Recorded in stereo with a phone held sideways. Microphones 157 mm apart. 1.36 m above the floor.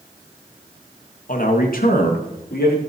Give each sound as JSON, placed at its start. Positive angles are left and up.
{"t": 1.3, "sound": "a man speaking", "side_deg": 60, "distance_m": 1.7}